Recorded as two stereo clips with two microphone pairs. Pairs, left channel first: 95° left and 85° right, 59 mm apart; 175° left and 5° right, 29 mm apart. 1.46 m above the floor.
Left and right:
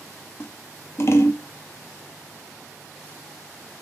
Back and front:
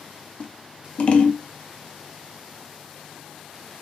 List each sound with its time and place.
0.4 s scissors: 140° left, 0.5 m